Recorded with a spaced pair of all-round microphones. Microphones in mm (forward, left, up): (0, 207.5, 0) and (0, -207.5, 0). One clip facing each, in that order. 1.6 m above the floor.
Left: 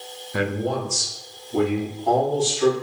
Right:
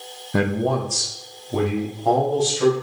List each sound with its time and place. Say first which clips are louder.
0.3 s a man speaking: right 3 dB; 65° right (ahead or behind), 0.6 m; by 2.7 s 85° right, 1.8 m